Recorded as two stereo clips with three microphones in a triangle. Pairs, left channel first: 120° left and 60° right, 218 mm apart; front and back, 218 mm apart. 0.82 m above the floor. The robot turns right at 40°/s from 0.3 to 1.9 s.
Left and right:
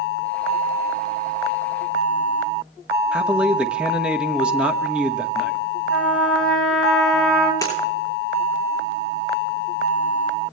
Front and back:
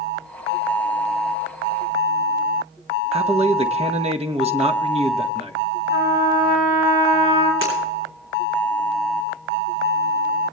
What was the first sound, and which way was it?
A man speaking, 140° right.